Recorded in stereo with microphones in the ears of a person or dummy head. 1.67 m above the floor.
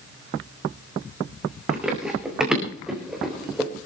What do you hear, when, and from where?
1.7 s running footsteps: 5° right (ahead or behind), 5 m; by 3.7 s centre (ahead or behind), 3.5 m